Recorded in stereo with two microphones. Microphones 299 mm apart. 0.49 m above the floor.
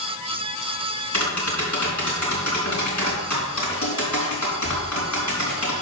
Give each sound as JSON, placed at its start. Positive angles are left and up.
{"t": 1.1, "sound": "tapping", "side_deg": 75, "distance_m": 4.0}